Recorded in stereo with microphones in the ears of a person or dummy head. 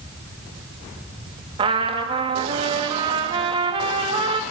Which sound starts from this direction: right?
A trumpet, at 1.6 s.